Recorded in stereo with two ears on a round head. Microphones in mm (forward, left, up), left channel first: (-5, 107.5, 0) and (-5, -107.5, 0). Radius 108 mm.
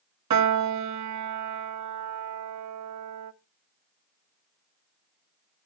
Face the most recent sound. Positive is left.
turn(degrees=-80)